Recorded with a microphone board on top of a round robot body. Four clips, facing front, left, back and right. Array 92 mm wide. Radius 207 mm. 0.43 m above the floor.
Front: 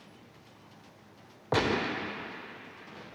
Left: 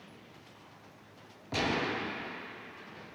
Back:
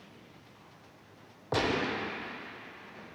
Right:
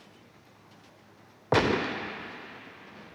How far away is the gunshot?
About 0.6 m.